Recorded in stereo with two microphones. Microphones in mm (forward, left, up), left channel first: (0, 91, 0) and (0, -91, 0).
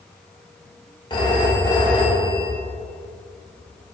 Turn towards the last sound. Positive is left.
turn(degrees=25)  # may be behind; listen again after turning